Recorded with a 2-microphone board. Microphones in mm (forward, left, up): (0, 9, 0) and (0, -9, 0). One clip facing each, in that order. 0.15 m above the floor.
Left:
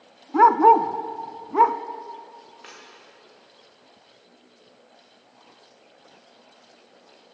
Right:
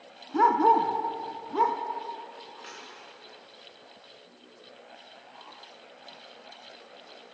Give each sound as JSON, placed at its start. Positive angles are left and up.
{"t": 0.3, "sound": "a dog barking", "side_deg": 35, "distance_m": 0.5}
{"t": 2.6, "sound": "a dropped coin", "side_deg": 10, "distance_m": 5.5}